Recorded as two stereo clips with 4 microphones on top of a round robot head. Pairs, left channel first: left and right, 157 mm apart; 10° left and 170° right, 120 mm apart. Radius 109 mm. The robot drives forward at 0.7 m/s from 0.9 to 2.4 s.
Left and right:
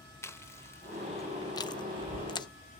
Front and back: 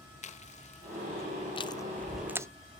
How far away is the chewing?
About 1.0 m.